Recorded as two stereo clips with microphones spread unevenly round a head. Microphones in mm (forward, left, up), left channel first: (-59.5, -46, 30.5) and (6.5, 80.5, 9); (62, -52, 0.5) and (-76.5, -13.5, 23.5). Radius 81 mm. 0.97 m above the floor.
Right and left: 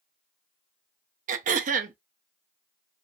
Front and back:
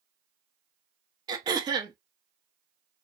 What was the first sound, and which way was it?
Throat clearing, 100° left.